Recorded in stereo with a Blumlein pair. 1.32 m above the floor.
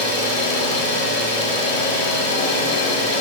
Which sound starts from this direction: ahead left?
An engine running, at 0.0 s.